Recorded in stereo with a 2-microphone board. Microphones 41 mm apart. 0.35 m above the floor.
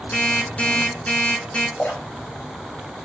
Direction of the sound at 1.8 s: 35° left (ahead or behind).